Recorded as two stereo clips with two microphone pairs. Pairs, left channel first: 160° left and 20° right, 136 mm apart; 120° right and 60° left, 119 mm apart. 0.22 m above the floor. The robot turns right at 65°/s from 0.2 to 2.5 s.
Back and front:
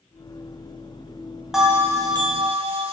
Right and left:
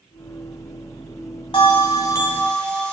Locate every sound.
1.5 s a bell: 105° right, 1.0 m; by 2.9 s 40° right, 1.0 m